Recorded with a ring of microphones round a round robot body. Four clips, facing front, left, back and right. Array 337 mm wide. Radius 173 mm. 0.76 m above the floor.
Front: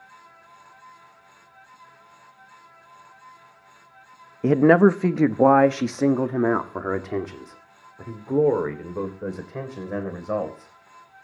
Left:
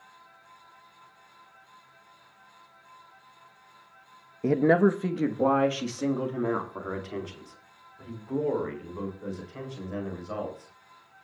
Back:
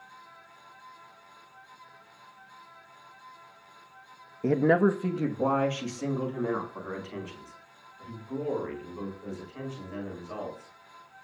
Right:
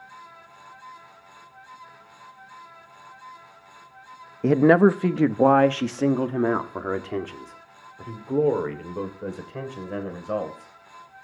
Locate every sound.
4.4 s a man speaking: 40° right, 0.8 m; by 10.7 s 30° right, 4 m